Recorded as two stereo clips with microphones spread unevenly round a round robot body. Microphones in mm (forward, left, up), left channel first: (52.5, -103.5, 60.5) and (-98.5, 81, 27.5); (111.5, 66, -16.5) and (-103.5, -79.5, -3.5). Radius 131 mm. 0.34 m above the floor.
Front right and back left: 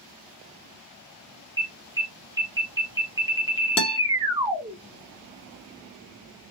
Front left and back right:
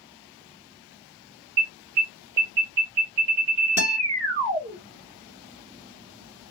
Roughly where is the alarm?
Behind.